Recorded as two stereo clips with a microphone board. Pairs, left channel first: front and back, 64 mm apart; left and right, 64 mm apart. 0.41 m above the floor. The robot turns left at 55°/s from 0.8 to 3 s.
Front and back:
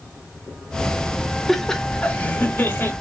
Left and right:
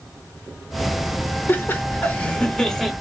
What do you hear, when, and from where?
1.5 s laughter: 85° left, 0.9 m; by 2.9 s 5° left, 0.9 m